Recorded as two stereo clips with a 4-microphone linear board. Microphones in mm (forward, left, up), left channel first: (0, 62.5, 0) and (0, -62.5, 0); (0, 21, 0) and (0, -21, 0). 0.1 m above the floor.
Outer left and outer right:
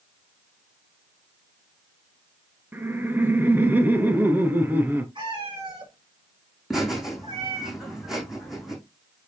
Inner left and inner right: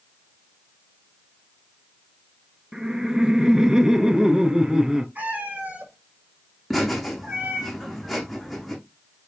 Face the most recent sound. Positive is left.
turn(degrees=-5)  # may be behind; listen again after turning